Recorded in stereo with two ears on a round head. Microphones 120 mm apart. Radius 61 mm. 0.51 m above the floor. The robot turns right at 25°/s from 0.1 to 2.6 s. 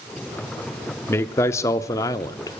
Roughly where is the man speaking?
Centre.